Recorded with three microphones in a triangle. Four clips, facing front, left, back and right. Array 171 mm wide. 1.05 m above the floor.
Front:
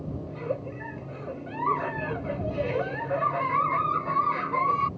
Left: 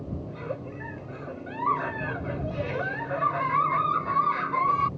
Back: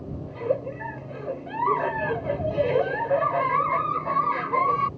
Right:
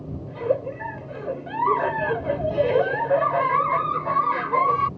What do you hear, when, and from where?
0.3 s a giggle: 120° right